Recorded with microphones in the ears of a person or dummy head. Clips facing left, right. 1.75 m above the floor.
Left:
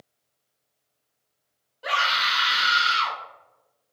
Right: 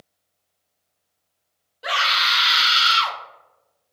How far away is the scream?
About 1.4 m.